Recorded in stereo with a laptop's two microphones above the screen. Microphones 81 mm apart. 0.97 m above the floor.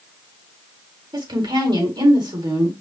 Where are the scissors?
No scissors in this recording.